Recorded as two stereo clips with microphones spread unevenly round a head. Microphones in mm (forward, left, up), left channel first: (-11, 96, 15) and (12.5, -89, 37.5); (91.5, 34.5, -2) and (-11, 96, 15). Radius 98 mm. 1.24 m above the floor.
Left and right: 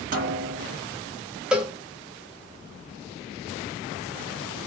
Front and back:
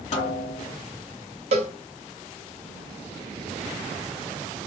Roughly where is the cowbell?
Behind.